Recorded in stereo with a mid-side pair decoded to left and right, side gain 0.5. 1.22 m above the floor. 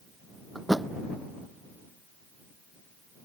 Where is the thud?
5° right.